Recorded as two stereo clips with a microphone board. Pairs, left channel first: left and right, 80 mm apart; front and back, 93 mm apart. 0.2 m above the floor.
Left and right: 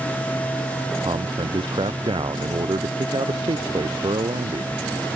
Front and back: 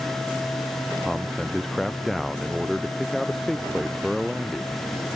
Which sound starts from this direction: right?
A man speaking, at 1.0 s.